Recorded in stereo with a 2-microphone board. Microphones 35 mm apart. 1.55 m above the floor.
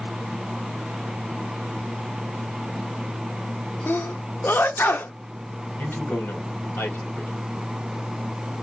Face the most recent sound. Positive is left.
turn(degrees=80)